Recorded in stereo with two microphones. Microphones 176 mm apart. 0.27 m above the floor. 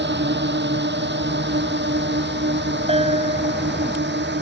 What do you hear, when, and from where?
0.0 s a drone: 85° right
2.9 s a bell: 35° right (ahead or behind)